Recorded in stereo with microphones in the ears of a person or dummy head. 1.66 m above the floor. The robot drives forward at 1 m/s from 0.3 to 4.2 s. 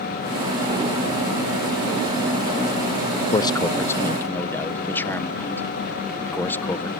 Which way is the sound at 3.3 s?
25° left (ahead or behind).